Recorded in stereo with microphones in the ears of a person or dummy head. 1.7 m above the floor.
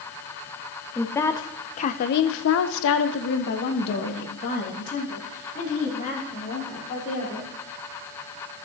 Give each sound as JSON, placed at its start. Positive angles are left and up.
{"t": 0.9, "sound": "a woman speaking", "side_deg": 10, "distance_m": 1.1}